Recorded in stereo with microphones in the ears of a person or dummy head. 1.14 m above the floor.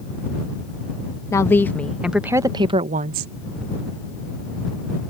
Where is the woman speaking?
15° left (ahead or behind); by 3.3 s 50° right (ahead or behind).